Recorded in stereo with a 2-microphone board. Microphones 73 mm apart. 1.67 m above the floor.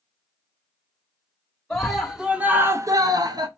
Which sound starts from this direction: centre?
A scream, at 1.7 s.